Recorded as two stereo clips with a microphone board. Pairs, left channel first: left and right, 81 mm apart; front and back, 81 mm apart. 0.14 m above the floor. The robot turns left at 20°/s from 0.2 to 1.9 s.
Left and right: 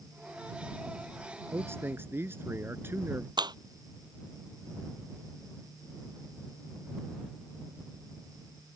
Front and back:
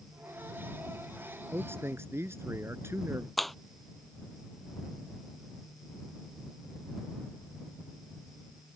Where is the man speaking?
130° right; by 3.3 s 135° right.